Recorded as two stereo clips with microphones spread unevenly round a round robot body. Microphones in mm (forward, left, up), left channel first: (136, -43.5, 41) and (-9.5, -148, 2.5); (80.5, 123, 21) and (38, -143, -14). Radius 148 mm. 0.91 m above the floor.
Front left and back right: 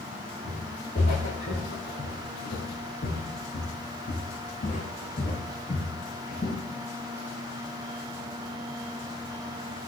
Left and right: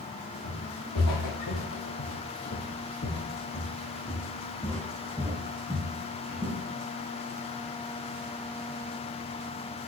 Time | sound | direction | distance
0.4 | footsteps | 85° left | 3 m